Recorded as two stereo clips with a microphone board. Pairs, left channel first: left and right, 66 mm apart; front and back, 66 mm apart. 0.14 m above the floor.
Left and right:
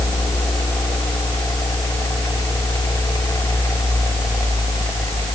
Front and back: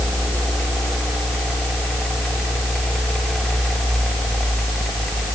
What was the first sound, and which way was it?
Only background noise.